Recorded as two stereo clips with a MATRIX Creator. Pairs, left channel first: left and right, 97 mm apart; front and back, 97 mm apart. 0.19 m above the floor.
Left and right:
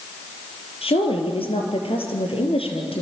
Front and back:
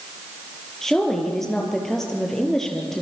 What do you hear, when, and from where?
0.8 s a woman speaking: 85° left, 4.5 m